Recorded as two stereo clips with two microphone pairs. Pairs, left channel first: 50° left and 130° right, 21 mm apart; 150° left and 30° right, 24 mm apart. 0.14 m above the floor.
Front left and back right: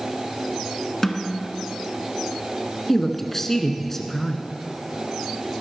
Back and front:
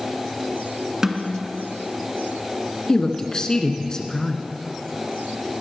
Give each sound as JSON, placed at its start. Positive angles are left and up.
{"t": 1.0, "sound": "a snare drum", "azimuth_deg": 0, "distance_m": 1.5}
{"t": 2.9, "sound": "a woman speaking", "azimuth_deg": 115, "distance_m": 1.4}